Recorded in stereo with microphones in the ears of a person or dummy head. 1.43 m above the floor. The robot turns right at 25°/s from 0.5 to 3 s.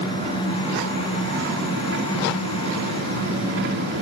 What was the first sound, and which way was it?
An engine running, 135° right.